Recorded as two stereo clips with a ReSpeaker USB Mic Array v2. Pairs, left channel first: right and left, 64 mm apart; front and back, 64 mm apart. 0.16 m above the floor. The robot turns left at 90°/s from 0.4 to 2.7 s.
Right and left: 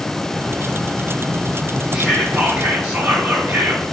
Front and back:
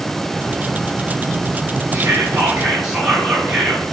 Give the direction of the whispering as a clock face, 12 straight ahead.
7 o'clock.